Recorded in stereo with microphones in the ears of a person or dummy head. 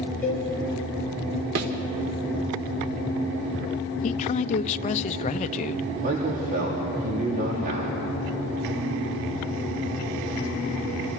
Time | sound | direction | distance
0.2 | a cowbell | 10° left (ahead or behind) | 8 m
1.6 | a thud | 45° right (ahead or behind) | 1.9 m
4.0 | a man speaking | 40° left (ahead or behind) | 0.7 m
6.0 | a man speaking | 50° right (ahead or behind) | 3.5 m